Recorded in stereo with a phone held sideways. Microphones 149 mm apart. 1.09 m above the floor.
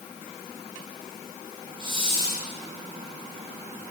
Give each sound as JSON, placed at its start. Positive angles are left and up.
{"t": 1.8, "sound": "a hiss", "side_deg": -35, "distance_m": 2.0}